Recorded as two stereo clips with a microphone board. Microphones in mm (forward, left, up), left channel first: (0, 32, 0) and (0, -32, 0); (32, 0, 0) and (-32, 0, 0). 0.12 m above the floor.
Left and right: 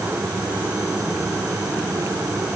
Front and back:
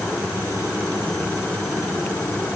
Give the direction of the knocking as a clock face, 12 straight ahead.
No knocking in this recording.